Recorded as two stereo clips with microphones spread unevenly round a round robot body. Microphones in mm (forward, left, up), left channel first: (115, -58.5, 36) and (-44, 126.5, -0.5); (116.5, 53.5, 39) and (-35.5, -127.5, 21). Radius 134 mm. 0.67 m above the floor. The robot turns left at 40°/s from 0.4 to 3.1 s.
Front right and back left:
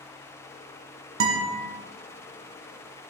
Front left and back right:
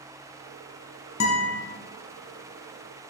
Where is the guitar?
95° left, 1.6 m; by 1.5 s 80° left, 1.6 m.